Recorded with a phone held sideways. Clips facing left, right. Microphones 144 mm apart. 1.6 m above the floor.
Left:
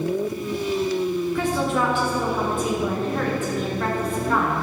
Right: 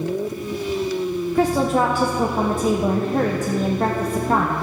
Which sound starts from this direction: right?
A woman speaking, at 1.4 s.